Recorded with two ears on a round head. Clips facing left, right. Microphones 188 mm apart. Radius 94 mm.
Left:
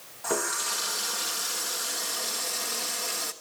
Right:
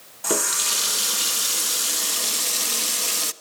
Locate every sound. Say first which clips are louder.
0.2 s a running tap: right 4 dB; 45° right (ahead or behind), 0.8 m